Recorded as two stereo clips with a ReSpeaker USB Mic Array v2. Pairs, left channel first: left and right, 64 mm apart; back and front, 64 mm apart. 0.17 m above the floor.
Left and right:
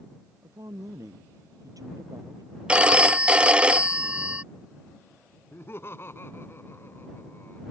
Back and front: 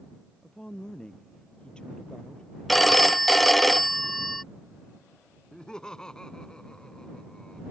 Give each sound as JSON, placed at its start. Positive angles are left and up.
{"t": 0.4, "sound": "a woman speaking", "azimuth_deg": -105}
{"t": 2.7, "sound": "a phone ringing", "azimuth_deg": -95}
{"t": 5.5, "sound": "laughter", "azimuth_deg": 110}